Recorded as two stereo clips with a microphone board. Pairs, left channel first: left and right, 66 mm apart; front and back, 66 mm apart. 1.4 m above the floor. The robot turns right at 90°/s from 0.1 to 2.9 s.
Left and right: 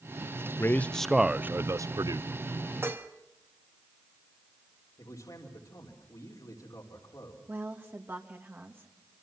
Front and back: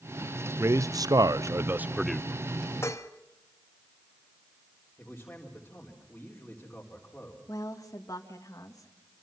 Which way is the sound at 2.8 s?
45° right.